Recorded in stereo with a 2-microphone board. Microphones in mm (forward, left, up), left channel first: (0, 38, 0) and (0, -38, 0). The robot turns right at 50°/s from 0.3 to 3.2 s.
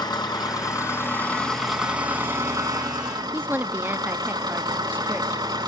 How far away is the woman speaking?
About 0.6 m.